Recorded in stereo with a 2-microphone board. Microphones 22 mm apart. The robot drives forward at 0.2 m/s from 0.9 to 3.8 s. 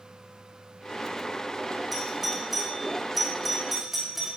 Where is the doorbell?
5° right (ahead or behind), 2.5 m.